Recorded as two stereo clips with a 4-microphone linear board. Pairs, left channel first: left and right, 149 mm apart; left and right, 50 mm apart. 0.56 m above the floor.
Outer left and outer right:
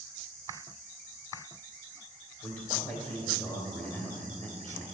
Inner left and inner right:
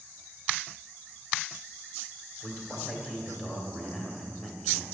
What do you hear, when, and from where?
2.4 s a man speaking: 10° left (ahead or behind), 2 m